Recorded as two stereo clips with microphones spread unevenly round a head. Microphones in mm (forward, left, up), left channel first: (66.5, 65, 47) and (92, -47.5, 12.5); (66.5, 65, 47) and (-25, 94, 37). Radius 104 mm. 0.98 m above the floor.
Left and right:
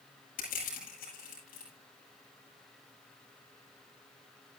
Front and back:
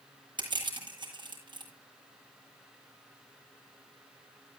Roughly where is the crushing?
Behind left.